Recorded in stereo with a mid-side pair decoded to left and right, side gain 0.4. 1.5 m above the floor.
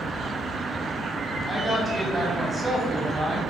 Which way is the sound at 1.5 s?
15° right.